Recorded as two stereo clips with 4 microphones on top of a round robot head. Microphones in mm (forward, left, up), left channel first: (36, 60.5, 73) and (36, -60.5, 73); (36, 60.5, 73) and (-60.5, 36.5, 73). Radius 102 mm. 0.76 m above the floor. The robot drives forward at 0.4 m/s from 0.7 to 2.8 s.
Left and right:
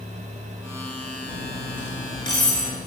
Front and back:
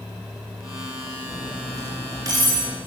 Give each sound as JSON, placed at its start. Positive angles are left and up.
{"t": 1.3, "sound": "cutlery clinking", "azimuth_deg": 140, "distance_m": 6.0}